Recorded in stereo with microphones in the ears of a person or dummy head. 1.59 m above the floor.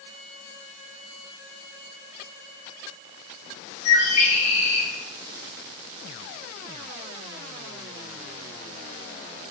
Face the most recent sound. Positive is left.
turn(degrees=45)  # may be behind; listen again after turning